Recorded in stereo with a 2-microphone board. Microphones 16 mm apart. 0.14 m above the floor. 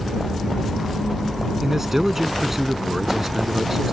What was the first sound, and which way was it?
A man speaking, 20° right (ahead or behind).